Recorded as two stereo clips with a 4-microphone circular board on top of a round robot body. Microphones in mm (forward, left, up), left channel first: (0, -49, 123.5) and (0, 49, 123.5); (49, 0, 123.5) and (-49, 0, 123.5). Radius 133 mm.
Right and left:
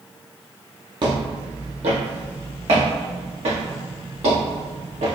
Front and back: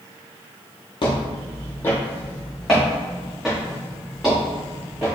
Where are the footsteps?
45° left, 0.7 m; by 5.2 s 95° left, 3 m.